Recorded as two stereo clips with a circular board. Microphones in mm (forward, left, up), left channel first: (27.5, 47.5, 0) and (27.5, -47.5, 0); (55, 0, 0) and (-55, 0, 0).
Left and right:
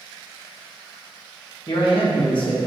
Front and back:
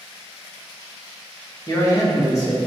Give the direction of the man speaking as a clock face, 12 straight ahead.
10 o'clock.